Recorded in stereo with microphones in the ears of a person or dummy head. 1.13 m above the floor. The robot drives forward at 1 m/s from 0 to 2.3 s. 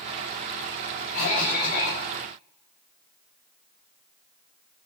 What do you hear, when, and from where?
1.1 s a cough: 50° left (ahead or behind), 6.5 m; by 2.0 s 55° left (ahead or behind), 6 m